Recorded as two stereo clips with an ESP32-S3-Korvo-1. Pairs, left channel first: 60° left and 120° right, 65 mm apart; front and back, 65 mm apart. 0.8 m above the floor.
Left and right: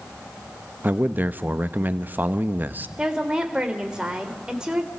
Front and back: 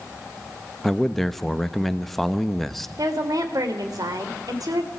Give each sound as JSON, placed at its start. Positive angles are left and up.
{"t": 0.8, "sound": "a man speaking", "azimuth_deg": -85, "distance_m": 0.9}
{"t": 3.0, "sound": "a woman speaking", "azimuth_deg": 160, "distance_m": 3.0}